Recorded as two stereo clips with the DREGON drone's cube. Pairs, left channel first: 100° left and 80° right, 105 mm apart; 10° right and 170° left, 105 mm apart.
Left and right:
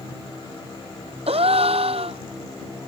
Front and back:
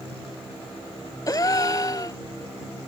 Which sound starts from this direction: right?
A gasp, at 1.3 s.